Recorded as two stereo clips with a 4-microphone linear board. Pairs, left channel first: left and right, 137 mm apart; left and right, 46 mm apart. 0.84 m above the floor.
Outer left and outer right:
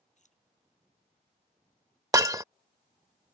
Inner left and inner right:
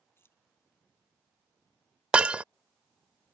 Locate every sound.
0.2 s keys jangling: 60° left (ahead or behind)
2.1 s breaking glass: 25° right (ahead or behind)